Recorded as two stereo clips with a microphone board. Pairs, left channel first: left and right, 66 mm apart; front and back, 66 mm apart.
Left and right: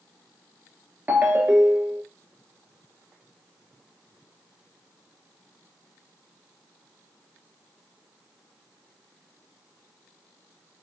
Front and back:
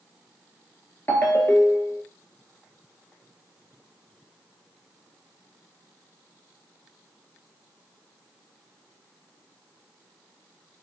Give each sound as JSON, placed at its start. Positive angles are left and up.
{"t": 1.1, "sound": "a ringtone", "azimuth_deg": -40, "distance_m": 0.8}